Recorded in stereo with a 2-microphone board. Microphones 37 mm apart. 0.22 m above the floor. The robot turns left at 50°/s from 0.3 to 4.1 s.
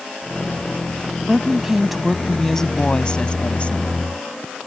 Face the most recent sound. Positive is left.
turn(degrees=80)